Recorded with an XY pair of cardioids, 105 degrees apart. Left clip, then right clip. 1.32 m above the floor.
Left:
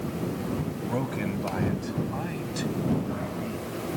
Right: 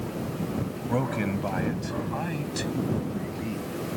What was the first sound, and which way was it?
A man speaking, 20° right.